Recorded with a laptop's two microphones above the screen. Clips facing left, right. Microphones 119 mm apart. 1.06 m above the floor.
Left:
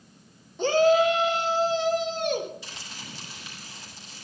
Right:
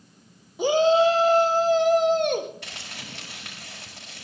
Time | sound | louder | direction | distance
0.6 | a shout | right 1 dB | 10° right (ahead or behind) | 0.8 m
2.6 | crumpling | right 2 dB | 70° right (ahead or behind) | 5 m